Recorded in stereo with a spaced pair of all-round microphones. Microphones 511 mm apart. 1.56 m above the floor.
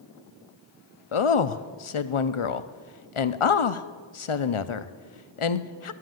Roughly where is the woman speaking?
Left.